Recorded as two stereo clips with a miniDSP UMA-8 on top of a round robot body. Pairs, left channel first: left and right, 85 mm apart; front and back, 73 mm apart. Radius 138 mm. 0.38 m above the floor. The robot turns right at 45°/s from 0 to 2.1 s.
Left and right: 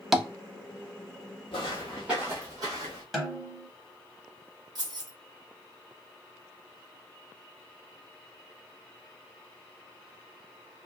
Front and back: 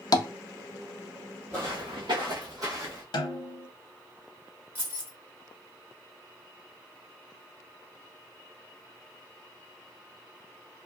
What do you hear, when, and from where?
0.1 s tapping: 5° right, 0.5 m; by 0.3 s straight ahead, 0.5 m
1.5 s footsteps: 115° left, 0.6 m; by 3.0 s 130° right, 1.0 m
3.1 s a snare drum: straight ahead, 0.8 m
4.8 s keys jangling: 120° right, 1.3 m